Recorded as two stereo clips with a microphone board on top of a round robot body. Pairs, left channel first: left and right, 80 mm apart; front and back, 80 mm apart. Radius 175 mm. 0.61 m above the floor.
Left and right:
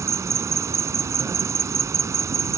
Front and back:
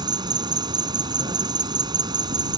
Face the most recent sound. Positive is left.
turn(degrees=-145)